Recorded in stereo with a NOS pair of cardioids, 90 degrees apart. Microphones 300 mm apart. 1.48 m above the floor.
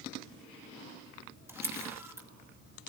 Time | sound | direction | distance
1.5 | a camera shutter | 10° right | 2 m